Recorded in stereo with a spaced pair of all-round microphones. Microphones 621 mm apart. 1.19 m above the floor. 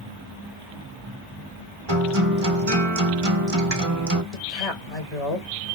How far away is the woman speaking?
About 1.6 m.